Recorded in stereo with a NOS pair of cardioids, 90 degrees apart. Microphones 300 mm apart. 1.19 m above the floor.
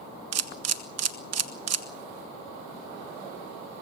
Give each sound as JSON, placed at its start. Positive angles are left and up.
{"t": 0.3, "sound": "a camera shutter", "azimuth_deg": -60, "distance_m": 1.5}